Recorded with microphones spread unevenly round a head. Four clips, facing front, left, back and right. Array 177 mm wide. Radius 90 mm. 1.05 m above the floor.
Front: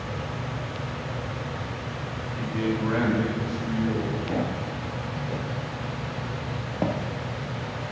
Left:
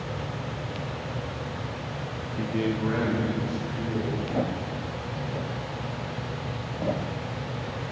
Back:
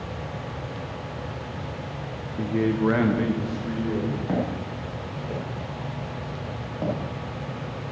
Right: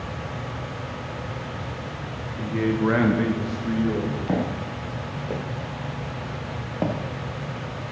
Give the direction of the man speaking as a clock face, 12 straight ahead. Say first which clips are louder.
Right 4 dB, back 4 dB; 7 o'clock.